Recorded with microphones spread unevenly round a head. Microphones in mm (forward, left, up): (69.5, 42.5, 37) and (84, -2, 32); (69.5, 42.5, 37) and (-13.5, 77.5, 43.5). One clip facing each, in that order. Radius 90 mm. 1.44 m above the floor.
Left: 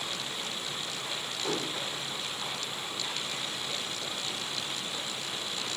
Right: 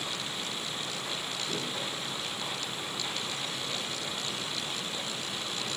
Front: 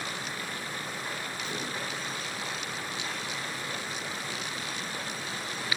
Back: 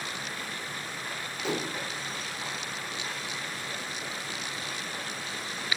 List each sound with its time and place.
1.4 s dishes clattering: 155° left, 3.5 m